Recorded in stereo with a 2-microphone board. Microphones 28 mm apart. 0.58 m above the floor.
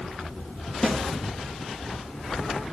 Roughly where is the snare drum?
Centre.